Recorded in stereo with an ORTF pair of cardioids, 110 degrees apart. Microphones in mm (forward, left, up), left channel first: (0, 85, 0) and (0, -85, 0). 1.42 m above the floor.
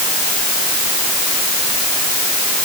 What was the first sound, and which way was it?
Only background noise.